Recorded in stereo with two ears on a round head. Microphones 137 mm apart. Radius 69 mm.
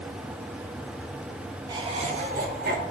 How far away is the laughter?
About 0.8 m.